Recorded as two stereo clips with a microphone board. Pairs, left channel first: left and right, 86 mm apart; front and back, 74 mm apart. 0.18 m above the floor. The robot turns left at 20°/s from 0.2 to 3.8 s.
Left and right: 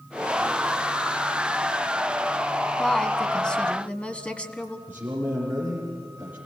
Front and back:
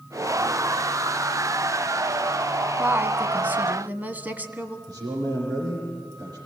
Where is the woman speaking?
170° left, 1.3 m; by 4.8 s 150° left, 1.3 m.